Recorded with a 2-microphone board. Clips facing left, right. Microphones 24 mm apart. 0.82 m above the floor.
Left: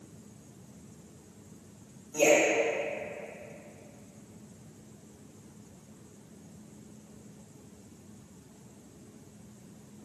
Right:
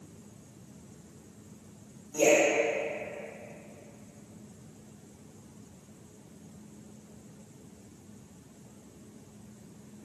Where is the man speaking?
5° left (ahead or behind), 2 m.